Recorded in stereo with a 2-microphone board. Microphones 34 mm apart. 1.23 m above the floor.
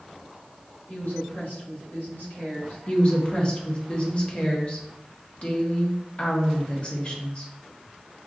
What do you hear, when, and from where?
0.9 s a woman speaking: 85° left, 2.0 m
2.9 s a woman speaking: 35° left (ahead or behind), 1.0 m